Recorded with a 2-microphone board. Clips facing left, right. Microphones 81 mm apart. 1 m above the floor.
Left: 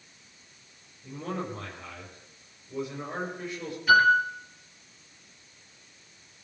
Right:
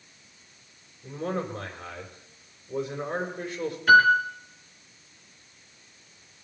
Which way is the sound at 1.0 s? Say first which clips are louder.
Right 4 dB; 75° right (ahead or behind).